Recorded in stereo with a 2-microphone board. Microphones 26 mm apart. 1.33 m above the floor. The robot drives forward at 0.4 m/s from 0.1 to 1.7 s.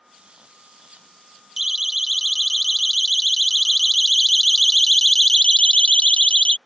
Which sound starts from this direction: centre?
A siren, at 1.6 s.